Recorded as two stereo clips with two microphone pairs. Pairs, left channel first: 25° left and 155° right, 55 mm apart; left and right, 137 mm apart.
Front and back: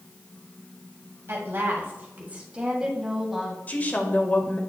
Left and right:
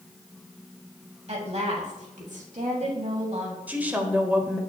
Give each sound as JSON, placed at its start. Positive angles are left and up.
{"t": 1.3, "sound": "a woman speaking", "azimuth_deg": -125, "distance_m": 2.0}
{"t": 3.7, "sound": "a woman speaking", "azimuth_deg": -15, "distance_m": 1.2}